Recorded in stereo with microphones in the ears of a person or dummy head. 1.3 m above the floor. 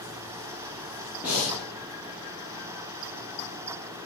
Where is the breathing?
5° right (ahead or behind), 1.3 m.